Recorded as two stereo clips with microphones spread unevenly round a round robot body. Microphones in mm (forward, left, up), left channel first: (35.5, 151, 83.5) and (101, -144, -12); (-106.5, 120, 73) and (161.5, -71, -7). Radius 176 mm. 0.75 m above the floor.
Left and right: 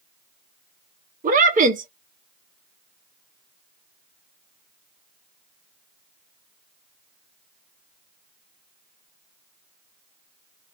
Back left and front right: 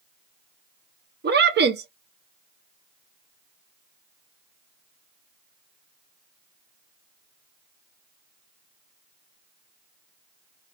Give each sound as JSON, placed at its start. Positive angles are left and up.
{"t": 1.2, "sound": "a woman speaking", "azimuth_deg": -55, "distance_m": 0.6}